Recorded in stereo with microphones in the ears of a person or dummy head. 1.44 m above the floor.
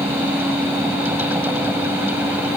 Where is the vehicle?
10° right (ahead or behind).